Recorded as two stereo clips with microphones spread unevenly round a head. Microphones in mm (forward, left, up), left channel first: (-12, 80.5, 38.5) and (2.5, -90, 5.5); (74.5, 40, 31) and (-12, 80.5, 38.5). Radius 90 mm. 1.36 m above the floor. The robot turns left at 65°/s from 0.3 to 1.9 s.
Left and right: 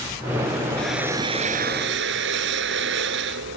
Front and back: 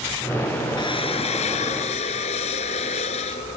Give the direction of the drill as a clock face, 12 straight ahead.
12 o'clock.